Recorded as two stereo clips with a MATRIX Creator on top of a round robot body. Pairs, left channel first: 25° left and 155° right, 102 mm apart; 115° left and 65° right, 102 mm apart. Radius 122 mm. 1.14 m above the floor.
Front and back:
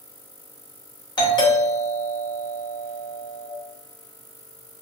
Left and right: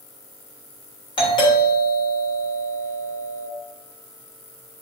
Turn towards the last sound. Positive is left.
turn(degrees=70)